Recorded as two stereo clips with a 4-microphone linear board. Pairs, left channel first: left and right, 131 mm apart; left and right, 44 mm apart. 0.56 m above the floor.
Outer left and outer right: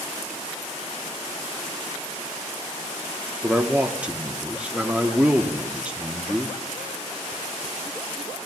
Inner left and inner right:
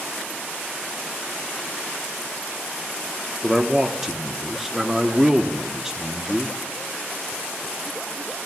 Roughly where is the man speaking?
Centre.